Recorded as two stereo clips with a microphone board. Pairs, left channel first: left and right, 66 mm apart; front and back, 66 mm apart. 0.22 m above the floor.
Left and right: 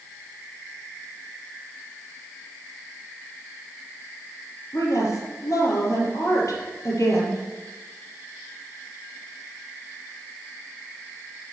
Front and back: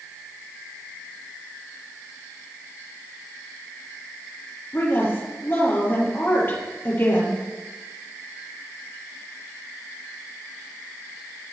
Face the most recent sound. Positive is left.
turn(degrees=55)